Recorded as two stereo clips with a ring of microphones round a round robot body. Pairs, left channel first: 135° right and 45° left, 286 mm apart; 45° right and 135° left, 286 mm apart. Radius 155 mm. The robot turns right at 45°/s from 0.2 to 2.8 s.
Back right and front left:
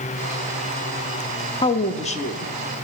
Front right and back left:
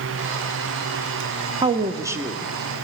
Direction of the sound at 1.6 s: Straight behind.